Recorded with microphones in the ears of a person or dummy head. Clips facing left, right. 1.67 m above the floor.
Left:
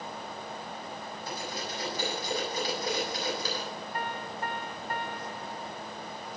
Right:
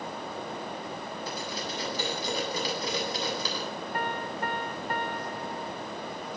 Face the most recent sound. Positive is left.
turn(degrees=-50)  # may be behind; listen again after turning